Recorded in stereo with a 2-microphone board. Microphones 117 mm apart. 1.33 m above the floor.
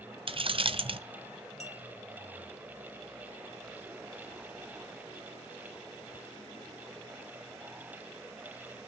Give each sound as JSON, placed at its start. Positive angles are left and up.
{"t": 0.3, "sound": "keys jangling", "side_deg": -50, "distance_m": 0.7}
{"t": 1.6, "sound": "a clink", "side_deg": 70, "distance_m": 1.9}